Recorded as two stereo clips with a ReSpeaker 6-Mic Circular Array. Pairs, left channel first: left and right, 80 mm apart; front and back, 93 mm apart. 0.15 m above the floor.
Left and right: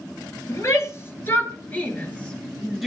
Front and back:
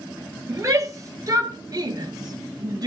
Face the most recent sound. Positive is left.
turn(degrees=180)